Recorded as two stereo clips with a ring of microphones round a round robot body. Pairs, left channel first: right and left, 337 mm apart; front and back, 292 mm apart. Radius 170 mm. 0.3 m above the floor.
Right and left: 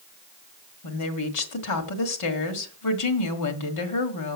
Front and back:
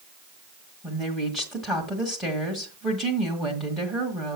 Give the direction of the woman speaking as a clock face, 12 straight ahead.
3 o'clock.